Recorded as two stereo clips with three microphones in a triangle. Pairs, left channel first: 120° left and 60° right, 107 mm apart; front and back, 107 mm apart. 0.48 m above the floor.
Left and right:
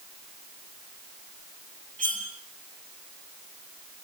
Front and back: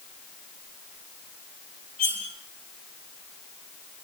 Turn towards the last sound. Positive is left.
turn(degrees=-160)